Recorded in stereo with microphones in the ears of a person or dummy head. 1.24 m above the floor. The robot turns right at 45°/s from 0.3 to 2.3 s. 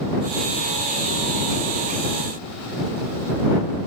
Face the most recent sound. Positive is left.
No sound to turn to.